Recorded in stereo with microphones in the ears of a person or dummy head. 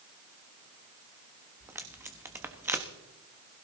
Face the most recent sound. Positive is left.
turn(degrees=-15)  # may be behind; listen again after turning